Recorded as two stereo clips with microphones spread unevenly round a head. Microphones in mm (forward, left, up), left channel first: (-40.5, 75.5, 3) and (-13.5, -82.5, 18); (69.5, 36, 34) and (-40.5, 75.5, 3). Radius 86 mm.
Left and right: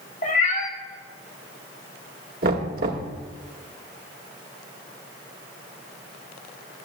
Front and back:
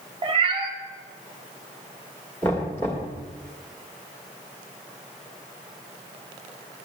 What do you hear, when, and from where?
0.2 s a cat meowing: 115° left, 1.2 m
2.4 s knocking: 90° right, 1.6 m